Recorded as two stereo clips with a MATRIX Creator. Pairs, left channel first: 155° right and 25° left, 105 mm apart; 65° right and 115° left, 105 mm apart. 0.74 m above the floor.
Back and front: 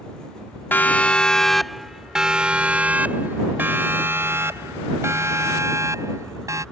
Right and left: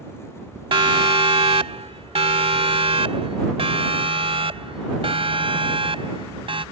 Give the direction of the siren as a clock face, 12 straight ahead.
8 o'clock.